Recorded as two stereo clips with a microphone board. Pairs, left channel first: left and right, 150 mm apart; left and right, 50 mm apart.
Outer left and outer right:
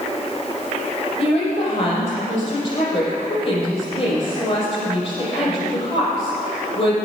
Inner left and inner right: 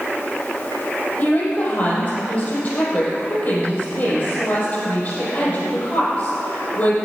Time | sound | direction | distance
1.2 | a woman speaking | 40° left (ahead or behind) | 5.5 m